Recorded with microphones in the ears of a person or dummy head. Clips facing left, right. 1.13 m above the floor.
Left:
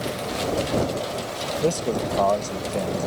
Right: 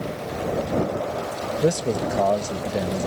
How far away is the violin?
I don't hear a violin.